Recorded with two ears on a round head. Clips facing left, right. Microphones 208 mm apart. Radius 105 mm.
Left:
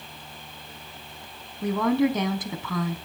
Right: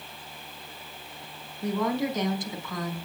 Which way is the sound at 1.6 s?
55° left (ahead or behind).